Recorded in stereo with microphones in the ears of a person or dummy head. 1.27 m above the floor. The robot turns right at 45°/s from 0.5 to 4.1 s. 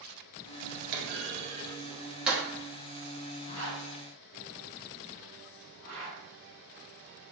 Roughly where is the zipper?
Left.